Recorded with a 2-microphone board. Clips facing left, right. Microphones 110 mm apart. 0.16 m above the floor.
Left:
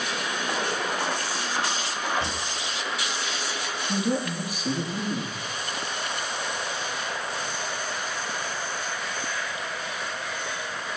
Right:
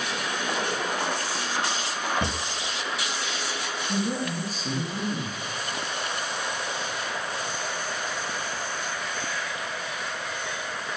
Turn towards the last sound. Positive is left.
turn(degrees=10)  # may be behind; listen again after turning